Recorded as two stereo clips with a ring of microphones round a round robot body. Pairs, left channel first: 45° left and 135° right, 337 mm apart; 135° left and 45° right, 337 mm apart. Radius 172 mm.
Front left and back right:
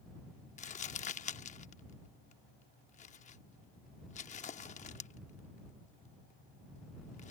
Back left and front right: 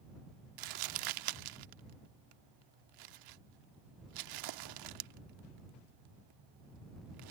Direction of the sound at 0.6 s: 25° right.